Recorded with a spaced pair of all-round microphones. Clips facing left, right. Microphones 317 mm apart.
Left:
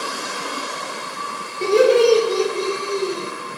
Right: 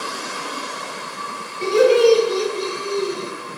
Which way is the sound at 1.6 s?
50° left (ahead or behind).